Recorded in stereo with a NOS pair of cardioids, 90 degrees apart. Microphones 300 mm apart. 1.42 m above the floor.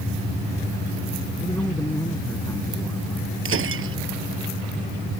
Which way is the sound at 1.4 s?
10° left.